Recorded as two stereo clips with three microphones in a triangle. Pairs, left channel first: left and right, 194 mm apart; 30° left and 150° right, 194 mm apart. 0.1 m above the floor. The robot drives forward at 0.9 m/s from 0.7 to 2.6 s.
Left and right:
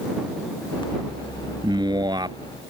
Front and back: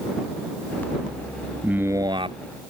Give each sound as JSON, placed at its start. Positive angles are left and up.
{"t": 1.6, "sound": "a man speaking", "azimuth_deg": -75}